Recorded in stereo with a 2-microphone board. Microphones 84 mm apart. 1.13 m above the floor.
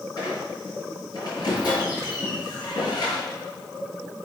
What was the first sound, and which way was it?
A squeak, 55° left (ahead or behind).